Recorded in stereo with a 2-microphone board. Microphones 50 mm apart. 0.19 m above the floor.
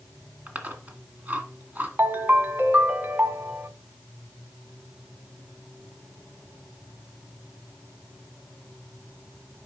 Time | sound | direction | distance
0.5 | chewing | 30° right (ahead or behind) | 1.6 m
2.0 | a ringtone | 40° right (ahead or behind) | 0.8 m